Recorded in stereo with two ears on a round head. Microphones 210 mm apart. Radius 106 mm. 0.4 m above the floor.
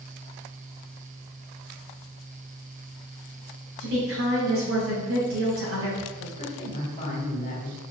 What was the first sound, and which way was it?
A woman speaking, 65° right (ahead or behind).